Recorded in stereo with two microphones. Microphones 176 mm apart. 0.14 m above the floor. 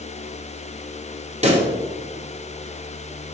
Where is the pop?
40° right (ahead or behind), 1.0 m.